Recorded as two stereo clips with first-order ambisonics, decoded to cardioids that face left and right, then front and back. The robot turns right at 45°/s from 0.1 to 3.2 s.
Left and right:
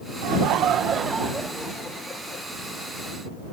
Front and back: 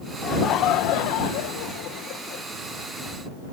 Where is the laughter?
60° right; by 2.5 s 40° left.